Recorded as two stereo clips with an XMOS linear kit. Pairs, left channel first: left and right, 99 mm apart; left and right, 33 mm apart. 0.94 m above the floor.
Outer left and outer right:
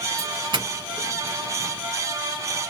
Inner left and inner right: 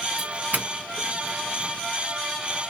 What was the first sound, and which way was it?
A doorbell, 50° right (ahead or behind).